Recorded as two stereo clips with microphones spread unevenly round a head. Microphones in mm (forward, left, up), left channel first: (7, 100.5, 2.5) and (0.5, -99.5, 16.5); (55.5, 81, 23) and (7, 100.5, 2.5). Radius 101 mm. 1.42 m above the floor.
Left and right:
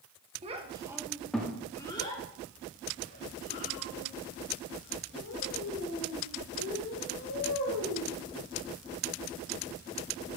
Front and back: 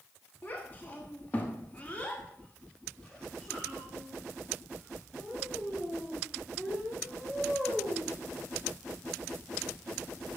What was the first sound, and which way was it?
A child speaking, 45° right.